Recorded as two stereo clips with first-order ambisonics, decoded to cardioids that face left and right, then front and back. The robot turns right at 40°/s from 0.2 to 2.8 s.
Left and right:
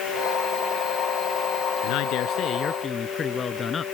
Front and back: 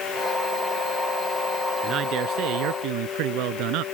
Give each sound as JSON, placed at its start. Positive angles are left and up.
{"t": 1.8, "sound": "a man speaking", "azimuth_deg": 115}